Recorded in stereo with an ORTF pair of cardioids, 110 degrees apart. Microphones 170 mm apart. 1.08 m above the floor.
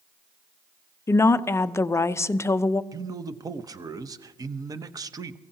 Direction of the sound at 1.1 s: 15° left.